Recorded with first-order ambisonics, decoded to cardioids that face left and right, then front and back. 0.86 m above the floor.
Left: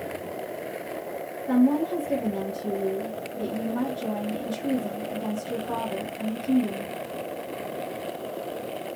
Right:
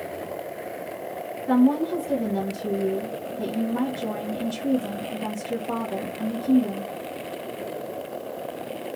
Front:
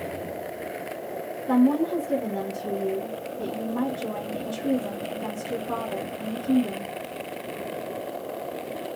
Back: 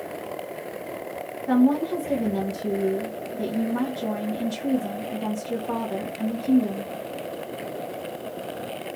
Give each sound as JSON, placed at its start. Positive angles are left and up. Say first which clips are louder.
{"t": 1.5, "sound": "a woman speaking", "louder": "right 2 dB, back 1 dB", "azimuth_deg": -155, "distance_m": 1.2}